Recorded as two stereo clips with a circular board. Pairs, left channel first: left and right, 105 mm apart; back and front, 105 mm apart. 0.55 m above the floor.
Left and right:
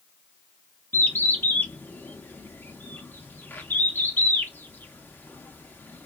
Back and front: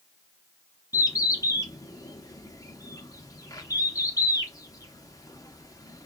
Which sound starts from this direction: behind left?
A bird, at 0.9 s.